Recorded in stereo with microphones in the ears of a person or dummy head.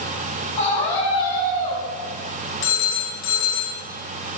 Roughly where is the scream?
Left.